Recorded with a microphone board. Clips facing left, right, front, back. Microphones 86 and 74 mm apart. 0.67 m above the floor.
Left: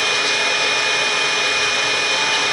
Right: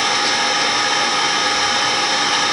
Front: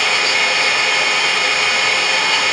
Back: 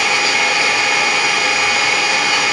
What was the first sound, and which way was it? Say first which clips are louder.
An engine running: right 3 dB, back 1 dB; 100° right.